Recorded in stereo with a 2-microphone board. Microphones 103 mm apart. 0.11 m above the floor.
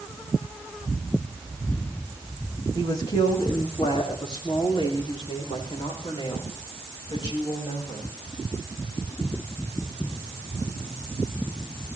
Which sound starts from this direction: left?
A woman speaking, at 2.8 s.